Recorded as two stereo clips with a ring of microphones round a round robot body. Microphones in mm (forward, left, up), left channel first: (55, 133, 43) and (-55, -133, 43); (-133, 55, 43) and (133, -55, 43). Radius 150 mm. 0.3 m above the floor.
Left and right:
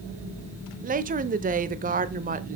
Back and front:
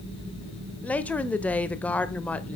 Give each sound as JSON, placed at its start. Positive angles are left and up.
{"t": 0.8, "sound": "a woman speaking", "azimuth_deg": -125, "distance_m": 0.9}